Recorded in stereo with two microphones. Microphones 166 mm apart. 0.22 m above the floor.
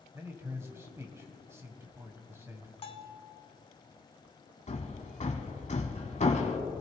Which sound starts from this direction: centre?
A man speaking, at 0.1 s.